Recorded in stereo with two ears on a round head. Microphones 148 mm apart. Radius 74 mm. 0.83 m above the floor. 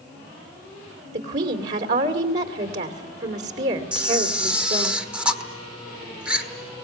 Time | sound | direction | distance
1.1 | a woman speaking | 70° right (ahead or behind) | 2.5 m
3.9 | a camera shutter | 5° right (ahead or behind) | 1.2 m